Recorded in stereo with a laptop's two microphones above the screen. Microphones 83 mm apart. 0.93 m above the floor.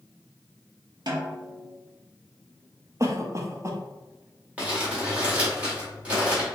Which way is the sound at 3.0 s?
40° right (ahead or behind).